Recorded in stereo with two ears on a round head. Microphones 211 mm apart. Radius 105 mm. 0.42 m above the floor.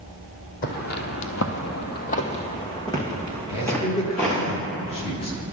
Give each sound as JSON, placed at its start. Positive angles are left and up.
{"t": 0.6, "sound": "footsteps", "side_deg": 40, "distance_m": 1.0}
{"t": 3.5, "sound": "a man speaking", "side_deg": 25, "distance_m": 1.2}